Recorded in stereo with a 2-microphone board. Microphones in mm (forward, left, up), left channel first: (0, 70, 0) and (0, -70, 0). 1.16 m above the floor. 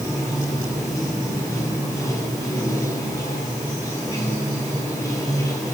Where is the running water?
25° left (ahead or behind), 8.5 m.